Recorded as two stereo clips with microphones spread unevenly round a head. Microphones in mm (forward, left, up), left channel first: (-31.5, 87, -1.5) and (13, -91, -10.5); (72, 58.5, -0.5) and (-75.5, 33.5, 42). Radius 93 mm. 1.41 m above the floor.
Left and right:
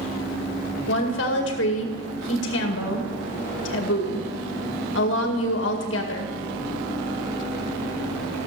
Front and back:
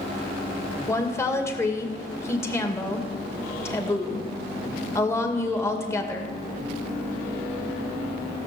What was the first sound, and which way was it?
A woman speaking, 80° left.